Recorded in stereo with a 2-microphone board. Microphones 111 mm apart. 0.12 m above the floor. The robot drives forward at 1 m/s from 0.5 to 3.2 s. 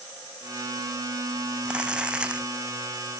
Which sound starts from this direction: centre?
Crumpling, at 1.6 s.